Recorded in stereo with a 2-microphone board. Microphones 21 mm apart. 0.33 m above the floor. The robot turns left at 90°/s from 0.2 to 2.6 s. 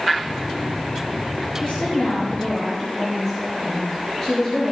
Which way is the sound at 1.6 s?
95° left.